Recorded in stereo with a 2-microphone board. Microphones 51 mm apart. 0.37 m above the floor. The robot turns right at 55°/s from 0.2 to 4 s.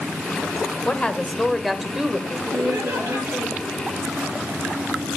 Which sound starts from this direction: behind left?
A woman speaking, at 0.8 s.